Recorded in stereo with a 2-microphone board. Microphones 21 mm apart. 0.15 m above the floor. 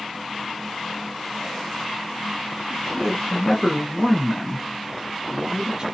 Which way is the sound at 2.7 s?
35° left (ahead or behind).